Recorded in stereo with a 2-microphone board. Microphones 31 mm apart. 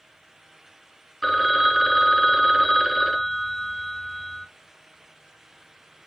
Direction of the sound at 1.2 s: 5° right (ahead or behind).